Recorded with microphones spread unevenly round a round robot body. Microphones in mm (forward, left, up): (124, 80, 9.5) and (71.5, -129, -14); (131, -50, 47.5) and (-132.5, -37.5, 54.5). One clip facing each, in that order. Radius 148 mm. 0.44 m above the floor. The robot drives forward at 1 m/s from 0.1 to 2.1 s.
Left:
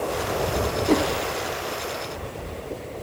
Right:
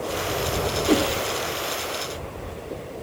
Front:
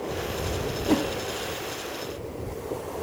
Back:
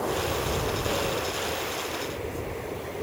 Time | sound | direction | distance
0.9 | a whoosh | 20° right | ?